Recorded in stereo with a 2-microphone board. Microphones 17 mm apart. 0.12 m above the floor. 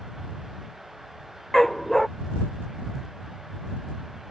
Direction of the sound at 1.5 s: 15° left (ahead or behind).